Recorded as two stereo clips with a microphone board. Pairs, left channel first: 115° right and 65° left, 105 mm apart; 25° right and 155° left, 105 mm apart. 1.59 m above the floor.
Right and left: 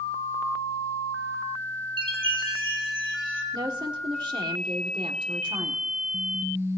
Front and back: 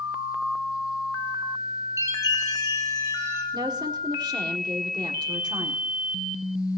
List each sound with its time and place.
2.0 s a chime: 100° left, 3.5 m
3.5 s a woman speaking: 110° left, 1.7 m